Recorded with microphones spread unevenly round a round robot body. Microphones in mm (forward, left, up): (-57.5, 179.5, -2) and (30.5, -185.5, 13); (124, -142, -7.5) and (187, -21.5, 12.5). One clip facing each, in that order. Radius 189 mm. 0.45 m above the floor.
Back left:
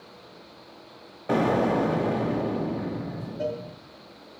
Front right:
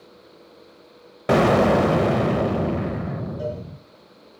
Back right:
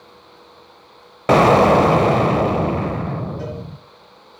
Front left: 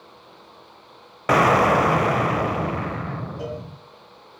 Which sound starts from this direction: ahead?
A cowbell, at 3.4 s.